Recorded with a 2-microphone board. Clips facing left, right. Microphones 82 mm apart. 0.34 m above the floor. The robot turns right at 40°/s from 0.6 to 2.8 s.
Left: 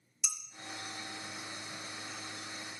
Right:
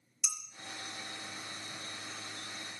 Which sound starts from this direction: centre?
Dishes clattering, at 0.2 s.